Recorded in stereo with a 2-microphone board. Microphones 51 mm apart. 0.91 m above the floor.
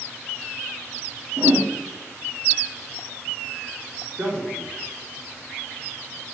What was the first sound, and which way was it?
A whoosh, 65° right (ahead or behind).